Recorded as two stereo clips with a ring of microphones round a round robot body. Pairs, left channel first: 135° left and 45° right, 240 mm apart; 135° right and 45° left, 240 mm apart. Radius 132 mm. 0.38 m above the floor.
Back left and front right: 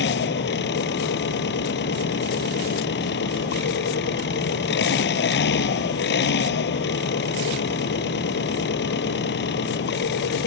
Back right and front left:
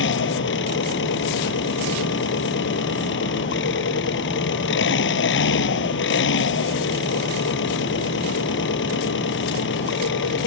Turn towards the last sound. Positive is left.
turn(degrees=180)